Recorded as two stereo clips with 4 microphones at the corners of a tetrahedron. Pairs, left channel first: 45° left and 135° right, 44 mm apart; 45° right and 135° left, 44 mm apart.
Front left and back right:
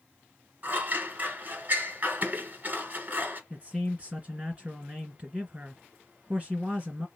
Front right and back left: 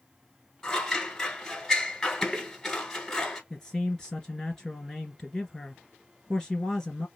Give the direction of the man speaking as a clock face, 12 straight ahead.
4 o'clock.